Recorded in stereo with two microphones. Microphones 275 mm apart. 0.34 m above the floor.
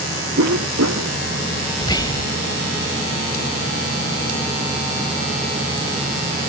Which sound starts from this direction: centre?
Whispering, at 1.8 s.